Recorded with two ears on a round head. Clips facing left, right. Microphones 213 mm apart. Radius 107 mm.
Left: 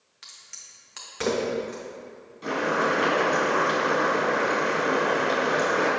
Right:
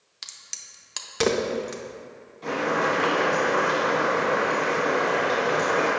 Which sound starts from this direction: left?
Boiling, at 2.4 s.